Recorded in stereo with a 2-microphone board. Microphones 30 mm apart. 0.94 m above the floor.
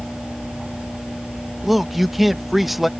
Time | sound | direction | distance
1.6 | a man speaking | 5° right (ahead or behind) | ?